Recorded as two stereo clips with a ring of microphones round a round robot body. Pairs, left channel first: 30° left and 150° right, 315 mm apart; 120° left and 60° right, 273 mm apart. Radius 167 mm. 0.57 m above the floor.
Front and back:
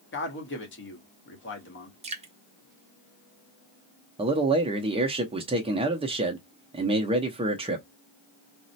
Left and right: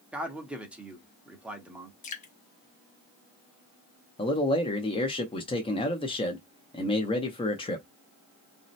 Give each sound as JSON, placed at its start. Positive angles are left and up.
{"t": 0.1, "sound": "a man speaking", "azimuth_deg": 25, "distance_m": 1.1}
{"t": 2.0, "sound": "dripping", "azimuth_deg": 155, "distance_m": 0.7}
{"t": 4.2, "sound": "a man speaking", "azimuth_deg": 165, "distance_m": 0.6}